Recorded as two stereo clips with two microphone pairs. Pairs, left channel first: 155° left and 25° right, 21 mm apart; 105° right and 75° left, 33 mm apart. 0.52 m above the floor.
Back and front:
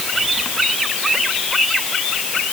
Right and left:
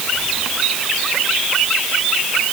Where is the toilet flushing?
No toilet flushing in this recording.